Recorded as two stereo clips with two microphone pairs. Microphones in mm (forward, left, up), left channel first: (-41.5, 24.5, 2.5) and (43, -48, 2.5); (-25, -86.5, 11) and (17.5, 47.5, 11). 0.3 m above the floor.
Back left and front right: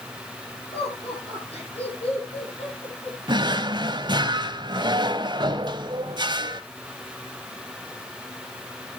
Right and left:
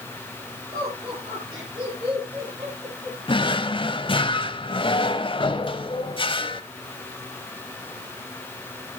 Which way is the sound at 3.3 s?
70° right.